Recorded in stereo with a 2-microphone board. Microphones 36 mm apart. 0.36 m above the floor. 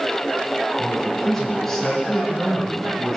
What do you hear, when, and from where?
0.8 s a man speaking: 10° left (ahead or behind), 6 m